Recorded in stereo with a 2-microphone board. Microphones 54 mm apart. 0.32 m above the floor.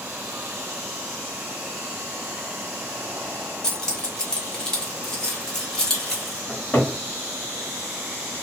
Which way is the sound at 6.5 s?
25° left (ahead or behind).